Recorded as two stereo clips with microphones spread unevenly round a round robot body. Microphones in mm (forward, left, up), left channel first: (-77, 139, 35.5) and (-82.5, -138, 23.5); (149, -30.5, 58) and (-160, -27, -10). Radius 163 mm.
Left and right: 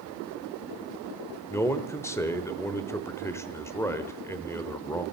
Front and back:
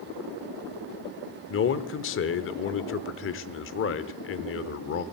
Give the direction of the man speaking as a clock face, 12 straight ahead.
12 o'clock.